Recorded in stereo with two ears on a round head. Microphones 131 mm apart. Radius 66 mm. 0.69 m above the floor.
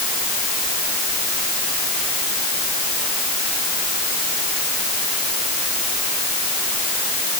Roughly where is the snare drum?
I don't hear a snare drum.